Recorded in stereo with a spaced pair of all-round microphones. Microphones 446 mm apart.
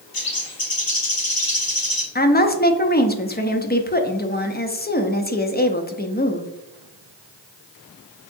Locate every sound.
0.1 s a bird: 50° left (ahead or behind), 0.8 m
2.1 s a woman speaking: 20° left (ahead or behind), 0.5 m